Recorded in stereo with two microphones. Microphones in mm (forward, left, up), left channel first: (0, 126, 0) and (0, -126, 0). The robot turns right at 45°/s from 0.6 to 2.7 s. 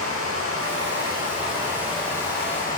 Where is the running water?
60° right, 1.8 m; by 2.8 s 35° left, 1.8 m.